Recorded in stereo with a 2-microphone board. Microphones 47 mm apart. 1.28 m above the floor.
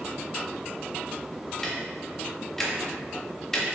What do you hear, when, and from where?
1.6 s ticking: 5° left (ahead or behind), 1.3 m